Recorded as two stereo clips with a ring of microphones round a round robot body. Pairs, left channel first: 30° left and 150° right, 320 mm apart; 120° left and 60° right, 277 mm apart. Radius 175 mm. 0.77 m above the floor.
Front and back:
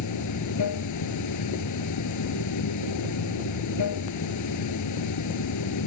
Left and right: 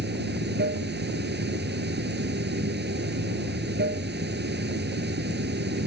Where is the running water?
5° right.